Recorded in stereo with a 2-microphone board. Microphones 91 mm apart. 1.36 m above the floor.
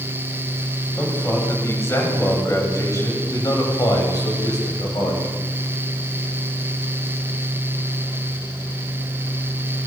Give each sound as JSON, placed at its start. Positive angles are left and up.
{"t": 1.0, "sound": "a man speaking", "side_deg": 25, "distance_m": 9.5}